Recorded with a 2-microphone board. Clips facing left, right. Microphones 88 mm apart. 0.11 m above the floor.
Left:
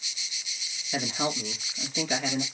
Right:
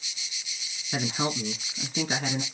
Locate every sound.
0.9 s a woman speaking: 45° right (ahead or behind), 1.5 m